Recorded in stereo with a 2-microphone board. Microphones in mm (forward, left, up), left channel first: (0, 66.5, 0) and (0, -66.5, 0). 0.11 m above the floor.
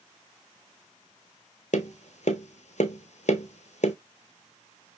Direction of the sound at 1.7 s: 60° left (ahead or behind).